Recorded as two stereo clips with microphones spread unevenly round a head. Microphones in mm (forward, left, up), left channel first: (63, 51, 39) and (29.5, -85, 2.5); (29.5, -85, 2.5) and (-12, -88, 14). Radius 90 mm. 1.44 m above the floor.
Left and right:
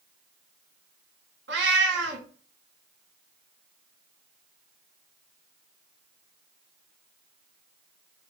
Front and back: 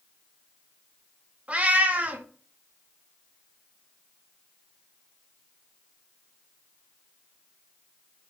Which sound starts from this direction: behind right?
A cat meowing, at 1.5 s.